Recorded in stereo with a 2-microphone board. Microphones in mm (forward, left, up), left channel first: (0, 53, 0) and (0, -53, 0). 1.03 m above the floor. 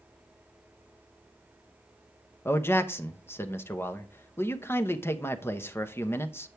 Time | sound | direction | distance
2.5 | a man speaking | 20° left (ahead or behind) | 0.8 m